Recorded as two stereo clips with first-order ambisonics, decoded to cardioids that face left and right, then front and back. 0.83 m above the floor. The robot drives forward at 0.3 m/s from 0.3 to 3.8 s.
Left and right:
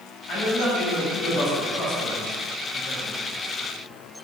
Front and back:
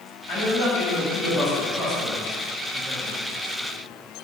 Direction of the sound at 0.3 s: 55° left.